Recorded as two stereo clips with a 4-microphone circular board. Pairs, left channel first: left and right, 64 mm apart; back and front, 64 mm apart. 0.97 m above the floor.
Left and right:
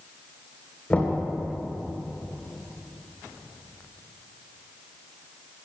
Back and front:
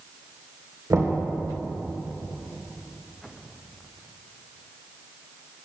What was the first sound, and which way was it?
Knocking, 25° left.